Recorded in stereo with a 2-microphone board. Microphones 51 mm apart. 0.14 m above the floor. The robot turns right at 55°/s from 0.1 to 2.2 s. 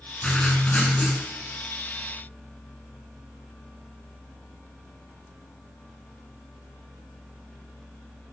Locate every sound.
0.2 s writing: 20° left (ahead or behind), 1.7 m; by 1.2 s 25° left (ahead or behind), 1.7 m